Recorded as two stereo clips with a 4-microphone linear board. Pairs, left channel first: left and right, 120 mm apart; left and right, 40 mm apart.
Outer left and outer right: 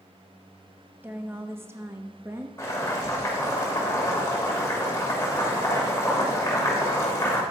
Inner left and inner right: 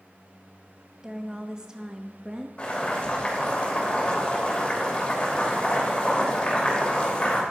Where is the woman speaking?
15° right (ahead or behind), 0.8 m; by 2.5 s 20° right (ahead or behind), 0.8 m.